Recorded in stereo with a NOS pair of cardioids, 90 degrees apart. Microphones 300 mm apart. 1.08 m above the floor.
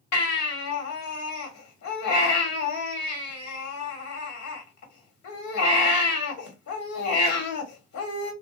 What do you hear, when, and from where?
0.1 s a baby crying: 70° left, 1.5 m